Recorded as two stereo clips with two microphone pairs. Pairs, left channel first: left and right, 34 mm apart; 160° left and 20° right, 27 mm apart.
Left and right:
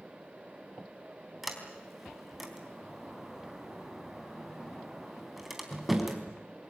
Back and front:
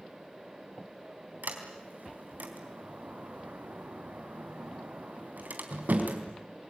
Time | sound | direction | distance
1.4 | a sliding door | straight ahead | 3.5 m